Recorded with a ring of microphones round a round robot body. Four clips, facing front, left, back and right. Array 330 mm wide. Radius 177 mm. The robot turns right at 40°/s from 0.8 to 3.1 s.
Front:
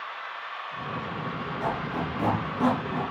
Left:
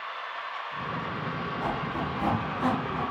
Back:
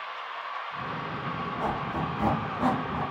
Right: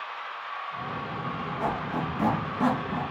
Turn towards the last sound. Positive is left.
turn(degrees=-25)